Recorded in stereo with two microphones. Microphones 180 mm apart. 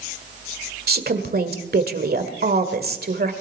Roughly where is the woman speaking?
Right.